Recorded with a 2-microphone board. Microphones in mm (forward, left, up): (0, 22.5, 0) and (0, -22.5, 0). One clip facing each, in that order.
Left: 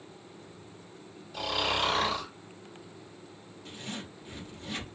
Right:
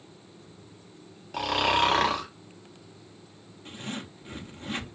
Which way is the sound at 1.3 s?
60° right (ahead or behind).